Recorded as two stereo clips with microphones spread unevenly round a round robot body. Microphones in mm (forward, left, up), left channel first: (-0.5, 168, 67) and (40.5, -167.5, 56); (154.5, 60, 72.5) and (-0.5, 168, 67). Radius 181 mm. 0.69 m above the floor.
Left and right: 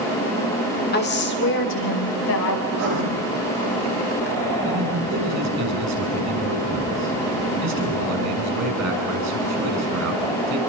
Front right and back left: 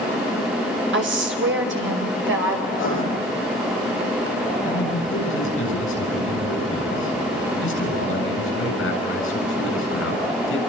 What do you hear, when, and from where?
0.9 s a woman speaking: 160° left, 2 m; by 2.6 s 145° left, 3.5 m
2.7 s writing: 50° right, 10 m
4.7 s a man speaking: 40° right, 8 m